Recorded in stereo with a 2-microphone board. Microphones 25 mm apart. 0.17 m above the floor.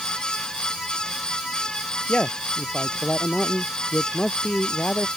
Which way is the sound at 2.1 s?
50° left (ahead or behind).